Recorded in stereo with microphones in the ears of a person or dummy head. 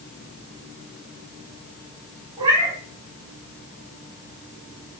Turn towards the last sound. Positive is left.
turn(degrees=-30)  # may be behind; listen again after turning